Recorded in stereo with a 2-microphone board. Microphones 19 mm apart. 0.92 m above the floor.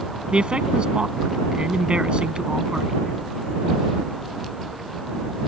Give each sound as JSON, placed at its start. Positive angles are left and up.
{"t": 0.3, "sound": "a man speaking", "side_deg": -70}